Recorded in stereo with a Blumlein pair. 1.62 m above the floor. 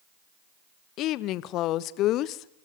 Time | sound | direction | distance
1.0 | a woman speaking | 35° left | 0.8 m